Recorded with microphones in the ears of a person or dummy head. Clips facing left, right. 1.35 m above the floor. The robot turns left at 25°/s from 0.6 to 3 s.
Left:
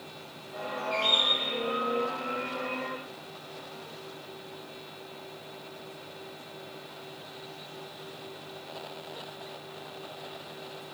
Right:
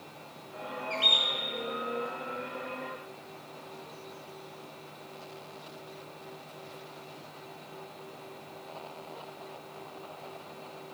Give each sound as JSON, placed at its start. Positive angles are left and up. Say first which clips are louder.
{"t": 0.9, "sound": "a bird", "louder": "left 5 dB", "side_deg": -20, "distance_m": 2.0}